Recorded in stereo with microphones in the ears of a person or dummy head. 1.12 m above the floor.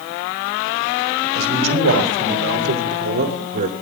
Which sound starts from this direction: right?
A man speaking, at 1.4 s.